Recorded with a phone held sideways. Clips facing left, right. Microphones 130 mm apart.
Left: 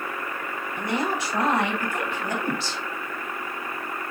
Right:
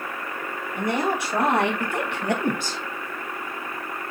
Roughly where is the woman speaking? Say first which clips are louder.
Right 3 dB; right.